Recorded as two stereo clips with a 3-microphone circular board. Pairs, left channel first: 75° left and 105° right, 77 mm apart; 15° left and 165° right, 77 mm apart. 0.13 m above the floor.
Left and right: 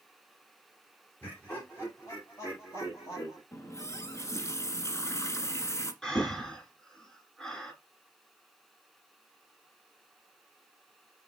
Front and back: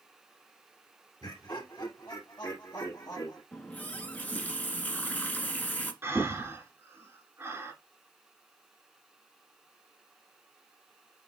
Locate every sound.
1.2 s laughter: 20° left, 2.0 m; by 3.4 s 55° left, 3 m
3.5 s a running tap: 70° left, 1.2 m
6.0 s breathing: 155° left, 2 m